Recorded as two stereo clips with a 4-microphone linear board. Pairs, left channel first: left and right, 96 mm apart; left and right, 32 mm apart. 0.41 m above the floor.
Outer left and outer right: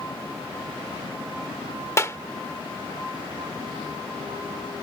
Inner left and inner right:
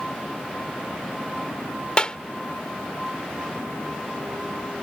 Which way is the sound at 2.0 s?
30° left (ahead or behind).